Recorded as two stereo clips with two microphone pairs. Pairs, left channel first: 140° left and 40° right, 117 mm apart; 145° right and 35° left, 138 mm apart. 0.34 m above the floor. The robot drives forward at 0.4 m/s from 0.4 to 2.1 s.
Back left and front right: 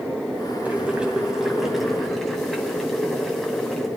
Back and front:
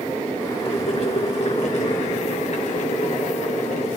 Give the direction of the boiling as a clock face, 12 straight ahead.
4 o'clock.